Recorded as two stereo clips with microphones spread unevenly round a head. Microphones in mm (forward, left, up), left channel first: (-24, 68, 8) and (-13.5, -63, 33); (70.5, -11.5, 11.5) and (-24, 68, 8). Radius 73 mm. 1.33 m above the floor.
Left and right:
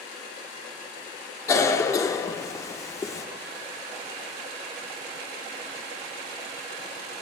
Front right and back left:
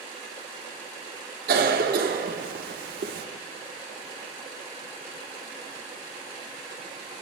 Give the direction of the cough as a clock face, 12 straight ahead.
7 o'clock.